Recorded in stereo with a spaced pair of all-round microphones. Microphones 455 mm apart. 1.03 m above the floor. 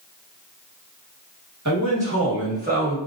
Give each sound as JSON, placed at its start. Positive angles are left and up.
{"t": 1.6, "sound": "a man speaking", "side_deg": -40, "distance_m": 1.4}